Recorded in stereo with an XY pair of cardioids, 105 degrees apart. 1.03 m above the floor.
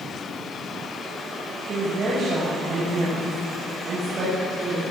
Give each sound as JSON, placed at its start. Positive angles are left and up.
{"t": 1.6, "sound": "a woman speaking", "azimuth_deg": -45, "distance_m": 6.0}